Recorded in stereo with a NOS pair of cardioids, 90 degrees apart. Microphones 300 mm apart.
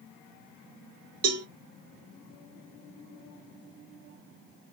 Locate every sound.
1.2 s a cowbell: 50° right, 0.7 m